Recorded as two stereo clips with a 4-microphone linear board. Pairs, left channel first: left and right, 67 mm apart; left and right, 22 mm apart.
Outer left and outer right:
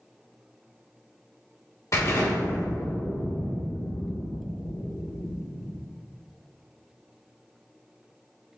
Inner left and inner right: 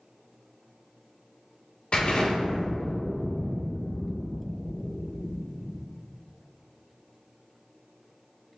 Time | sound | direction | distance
1.9 | an explosion | 50° left (ahead or behind) | 1.3 m